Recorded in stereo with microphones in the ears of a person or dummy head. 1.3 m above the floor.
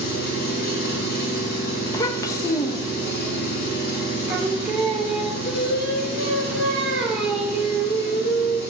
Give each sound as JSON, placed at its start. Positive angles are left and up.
{"t": 0.0, "sound": "an engine running", "side_deg": 65, "distance_m": 6.0}
{"t": 1.9, "sound": "a child speaking", "side_deg": 25, "distance_m": 0.9}
{"t": 4.3, "sound": "singing", "side_deg": 0, "distance_m": 3.0}